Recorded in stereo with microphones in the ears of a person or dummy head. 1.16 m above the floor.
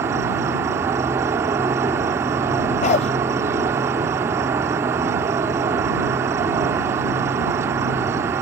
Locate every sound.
0.0 s an insect: 15° right (ahead or behind)
2.8 s a dog barking: 40° left (ahead or behind)